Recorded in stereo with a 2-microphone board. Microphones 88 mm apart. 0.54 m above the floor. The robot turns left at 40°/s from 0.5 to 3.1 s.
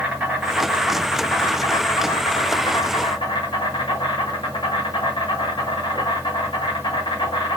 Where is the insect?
165° right, 1.6 m; by 7.6 s 90° left, 1.6 m.